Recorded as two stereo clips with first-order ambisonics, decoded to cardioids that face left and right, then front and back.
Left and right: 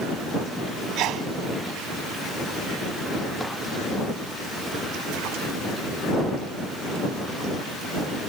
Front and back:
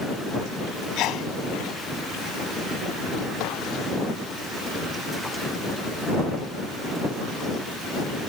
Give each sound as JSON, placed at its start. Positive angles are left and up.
{"t": 1.0, "sound": "a sneeze", "azimuth_deg": -45}